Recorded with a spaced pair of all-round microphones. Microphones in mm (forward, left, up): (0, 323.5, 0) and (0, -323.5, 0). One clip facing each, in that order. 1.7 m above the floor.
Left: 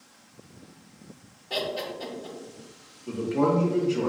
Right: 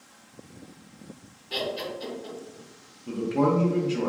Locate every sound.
1.5 s laughter: 70° left (ahead or behind), 0.8 m
3.1 s a man speaking: 25° right (ahead or behind), 0.6 m